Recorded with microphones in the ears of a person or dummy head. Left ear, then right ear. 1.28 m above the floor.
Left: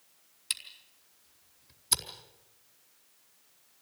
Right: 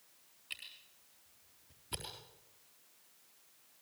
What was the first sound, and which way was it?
A camera shutter, 75° left (ahead or behind).